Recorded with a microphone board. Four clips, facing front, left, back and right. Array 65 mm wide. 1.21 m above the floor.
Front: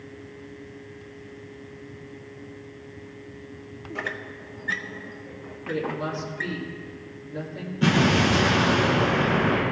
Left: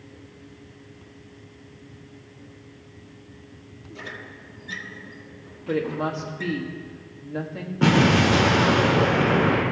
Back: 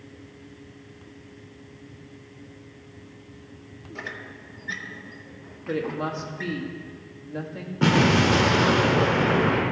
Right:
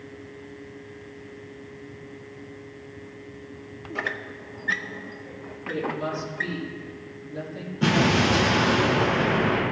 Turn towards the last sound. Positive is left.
turn(degrees=145)